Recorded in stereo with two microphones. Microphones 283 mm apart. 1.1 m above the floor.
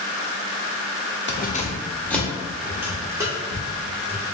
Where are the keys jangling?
40° left (ahead or behind), 0.6 m; by 4.2 s 15° right (ahead or behind), 2.5 m.